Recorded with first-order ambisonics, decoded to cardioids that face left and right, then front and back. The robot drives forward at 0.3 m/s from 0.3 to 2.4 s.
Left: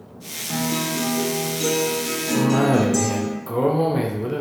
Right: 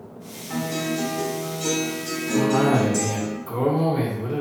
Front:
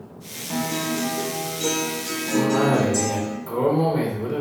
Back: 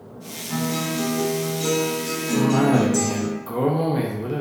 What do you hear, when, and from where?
0.5 s a guitar: 75° left, 1.5 m; by 3.3 s 100° left, 1.4 m
2.3 s a cough: 105° left, 0.5 m; by 4.4 s 110° left, 0.5 m